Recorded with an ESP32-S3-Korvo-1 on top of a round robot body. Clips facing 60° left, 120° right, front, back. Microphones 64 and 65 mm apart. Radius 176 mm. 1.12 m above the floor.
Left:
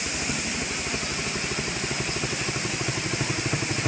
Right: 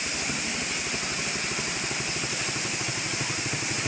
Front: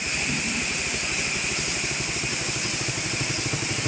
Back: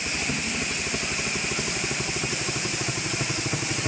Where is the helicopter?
145° left; by 3.9 s 115° left.